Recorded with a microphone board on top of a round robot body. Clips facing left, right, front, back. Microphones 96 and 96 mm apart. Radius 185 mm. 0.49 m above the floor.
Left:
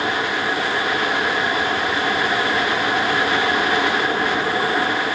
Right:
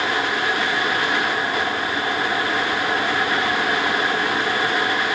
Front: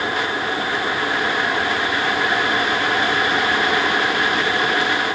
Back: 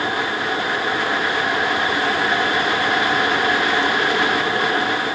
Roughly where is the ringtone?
No ringtone in this recording.